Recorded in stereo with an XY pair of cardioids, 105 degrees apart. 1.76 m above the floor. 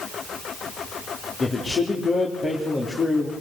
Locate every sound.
1.4 s a man speaking: 35° left, 3.5 m